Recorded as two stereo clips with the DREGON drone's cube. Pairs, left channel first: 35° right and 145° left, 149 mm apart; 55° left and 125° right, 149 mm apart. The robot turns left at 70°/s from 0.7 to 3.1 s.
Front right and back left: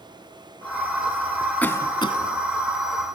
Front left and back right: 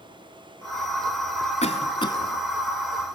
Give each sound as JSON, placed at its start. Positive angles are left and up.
{"t": 1.6, "sound": "a cough", "azimuth_deg": 40, "distance_m": 1.7}